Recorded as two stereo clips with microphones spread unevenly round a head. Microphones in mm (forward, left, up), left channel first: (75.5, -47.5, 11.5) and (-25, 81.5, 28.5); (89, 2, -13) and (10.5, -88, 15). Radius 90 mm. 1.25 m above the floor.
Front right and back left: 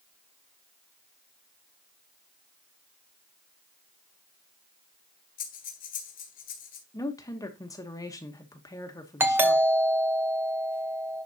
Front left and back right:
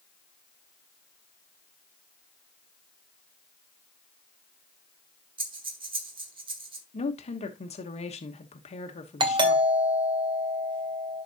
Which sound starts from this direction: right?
Breathing, at 5.4 s.